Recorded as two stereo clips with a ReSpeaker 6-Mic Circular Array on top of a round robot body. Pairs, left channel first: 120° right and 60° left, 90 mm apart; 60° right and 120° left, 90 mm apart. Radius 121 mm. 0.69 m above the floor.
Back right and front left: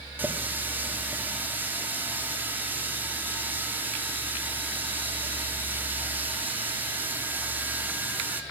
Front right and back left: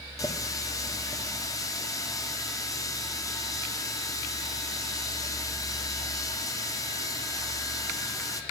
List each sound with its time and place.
0.2 s a running tap: 10° right, 1.3 m